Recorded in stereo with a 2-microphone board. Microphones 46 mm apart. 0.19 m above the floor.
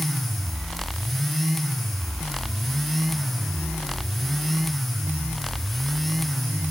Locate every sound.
Only background noise.